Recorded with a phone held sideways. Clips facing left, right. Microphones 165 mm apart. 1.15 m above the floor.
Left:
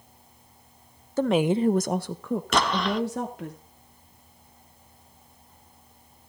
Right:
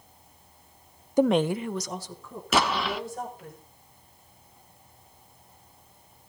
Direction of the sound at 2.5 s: 5° right (ahead or behind).